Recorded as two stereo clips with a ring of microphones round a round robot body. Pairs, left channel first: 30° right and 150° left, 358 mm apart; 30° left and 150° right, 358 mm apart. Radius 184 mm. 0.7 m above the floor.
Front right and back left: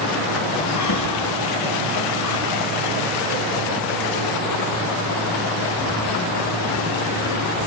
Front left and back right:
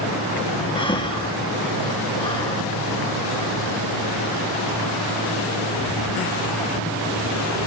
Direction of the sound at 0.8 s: 45° right.